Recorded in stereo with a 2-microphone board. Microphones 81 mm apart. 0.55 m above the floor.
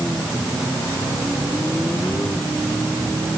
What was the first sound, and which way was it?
Only background noise.